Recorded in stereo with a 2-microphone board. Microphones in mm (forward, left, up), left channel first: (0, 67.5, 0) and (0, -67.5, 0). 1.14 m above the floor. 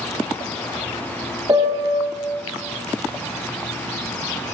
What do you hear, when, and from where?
1.5 s a piano: 30° right (ahead or behind), 0.6 m